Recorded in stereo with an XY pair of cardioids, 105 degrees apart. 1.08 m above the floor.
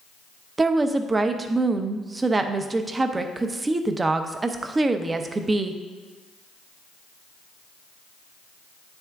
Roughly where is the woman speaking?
Ahead right.